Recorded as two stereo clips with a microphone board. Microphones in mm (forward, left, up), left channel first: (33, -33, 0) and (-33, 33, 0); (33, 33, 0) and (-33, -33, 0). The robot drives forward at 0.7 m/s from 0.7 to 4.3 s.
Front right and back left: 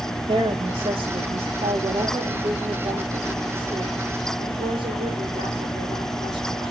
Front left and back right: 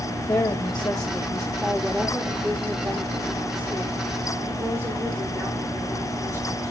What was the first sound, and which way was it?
A woman speaking, 90° left.